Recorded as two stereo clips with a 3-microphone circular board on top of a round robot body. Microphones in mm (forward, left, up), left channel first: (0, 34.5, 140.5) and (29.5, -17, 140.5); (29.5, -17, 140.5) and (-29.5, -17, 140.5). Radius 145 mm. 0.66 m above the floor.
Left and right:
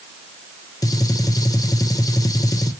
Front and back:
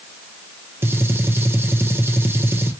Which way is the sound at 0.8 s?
130° left.